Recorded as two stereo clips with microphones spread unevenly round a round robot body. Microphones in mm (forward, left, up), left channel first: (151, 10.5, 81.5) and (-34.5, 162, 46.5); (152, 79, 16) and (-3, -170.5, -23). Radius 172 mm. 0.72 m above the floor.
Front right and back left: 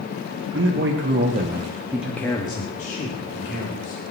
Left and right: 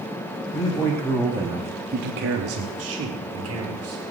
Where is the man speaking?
135° left, 2 m; by 4.0 s 90° right, 3 m.